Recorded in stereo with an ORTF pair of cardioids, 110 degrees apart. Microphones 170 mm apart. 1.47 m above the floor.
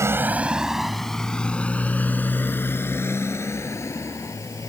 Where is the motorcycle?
15° right; by 4.7 s 20° left.